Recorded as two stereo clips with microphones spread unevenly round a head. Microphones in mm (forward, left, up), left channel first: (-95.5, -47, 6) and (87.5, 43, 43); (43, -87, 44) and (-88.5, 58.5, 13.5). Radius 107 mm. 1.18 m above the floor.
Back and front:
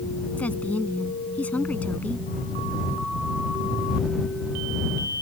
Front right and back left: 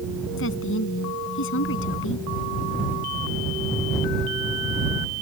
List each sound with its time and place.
0.4 s a woman speaking: 70° right